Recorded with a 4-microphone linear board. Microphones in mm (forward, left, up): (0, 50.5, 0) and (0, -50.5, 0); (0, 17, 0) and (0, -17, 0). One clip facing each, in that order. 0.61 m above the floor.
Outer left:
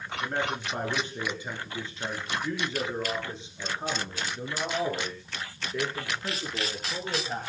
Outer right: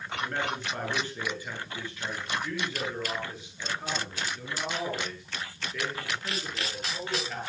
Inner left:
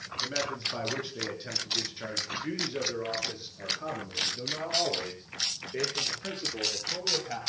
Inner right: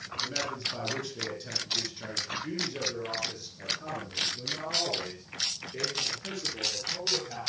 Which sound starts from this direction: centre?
A man speaking, at 0.2 s.